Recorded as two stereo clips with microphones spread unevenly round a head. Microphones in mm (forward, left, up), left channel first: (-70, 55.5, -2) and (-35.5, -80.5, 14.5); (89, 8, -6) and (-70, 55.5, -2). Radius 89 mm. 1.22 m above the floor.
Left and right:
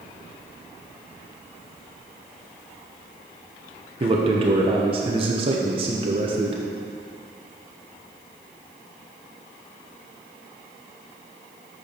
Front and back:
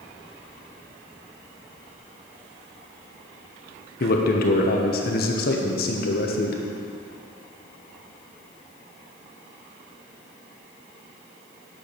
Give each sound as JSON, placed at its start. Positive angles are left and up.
{"t": 4.0, "sound": "a man speaking", "azimuth_deg": -20, "distance_m": 1.0}